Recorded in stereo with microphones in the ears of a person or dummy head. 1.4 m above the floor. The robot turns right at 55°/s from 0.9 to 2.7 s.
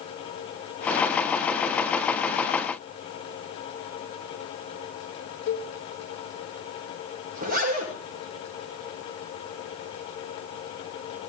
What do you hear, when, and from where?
5.5 s a cowbell: 50° left (ahead or behind), 1.6 m
7.3 s a zipper: 45° right (ahead or behind), 6 m